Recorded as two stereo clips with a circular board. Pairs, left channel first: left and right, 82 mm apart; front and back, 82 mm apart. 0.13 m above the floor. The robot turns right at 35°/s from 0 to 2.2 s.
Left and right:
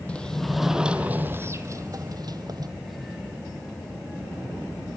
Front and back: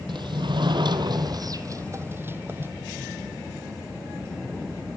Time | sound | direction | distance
0.1 | a sliding door | 165° left | 1.5 m